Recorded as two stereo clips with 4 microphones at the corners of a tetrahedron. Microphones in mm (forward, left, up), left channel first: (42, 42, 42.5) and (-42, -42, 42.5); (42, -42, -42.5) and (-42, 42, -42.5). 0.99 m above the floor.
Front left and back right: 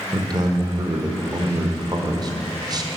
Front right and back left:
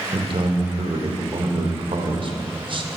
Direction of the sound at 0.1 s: 175° left.